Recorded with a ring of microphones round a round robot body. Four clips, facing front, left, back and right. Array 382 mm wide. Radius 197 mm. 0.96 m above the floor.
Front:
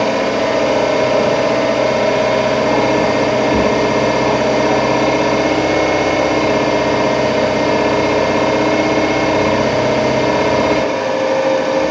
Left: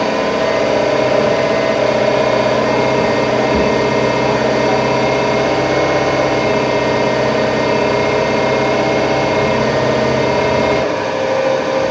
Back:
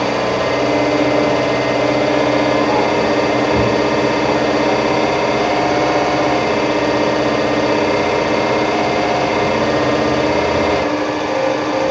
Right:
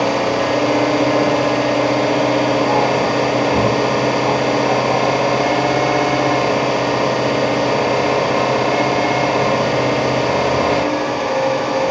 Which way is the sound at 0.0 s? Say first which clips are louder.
Left 2 dB, front 2 dB; 40° left.